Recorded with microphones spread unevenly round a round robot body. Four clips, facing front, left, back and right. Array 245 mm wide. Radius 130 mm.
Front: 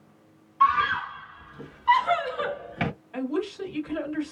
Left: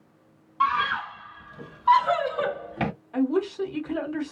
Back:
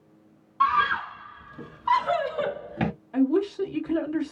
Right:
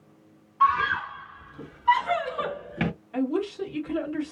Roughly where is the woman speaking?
Behind.